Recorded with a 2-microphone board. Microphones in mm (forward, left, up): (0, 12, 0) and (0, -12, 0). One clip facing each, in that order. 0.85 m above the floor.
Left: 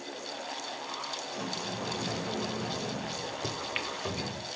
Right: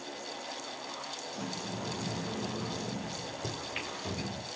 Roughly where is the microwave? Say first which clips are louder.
Left 4 dB; left.